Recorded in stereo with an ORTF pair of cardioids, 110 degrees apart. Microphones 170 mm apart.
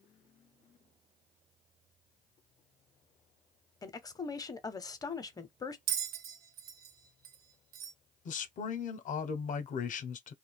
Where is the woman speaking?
20° left, 0.6 m.